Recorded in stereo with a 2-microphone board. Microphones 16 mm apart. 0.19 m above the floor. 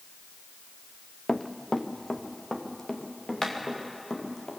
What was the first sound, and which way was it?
Running footsteps, 30° left (ahead or behind).